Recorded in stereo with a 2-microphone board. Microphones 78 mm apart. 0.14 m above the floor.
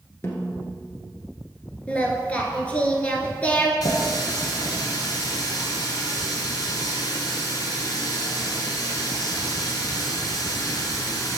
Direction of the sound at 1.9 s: 20° left (ahead or behind).